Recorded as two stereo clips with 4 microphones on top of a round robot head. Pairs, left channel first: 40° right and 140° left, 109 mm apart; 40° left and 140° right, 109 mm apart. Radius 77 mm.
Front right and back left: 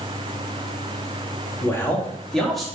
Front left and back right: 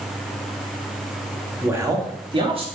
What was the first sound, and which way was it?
A man speaking, 80° right.